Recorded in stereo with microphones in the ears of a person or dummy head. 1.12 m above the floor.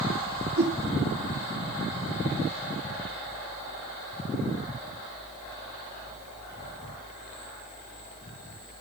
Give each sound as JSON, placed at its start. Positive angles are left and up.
{"t": 0.6, "sound": "a whoosh", "side_deg": -75, "distance_m": 5.5}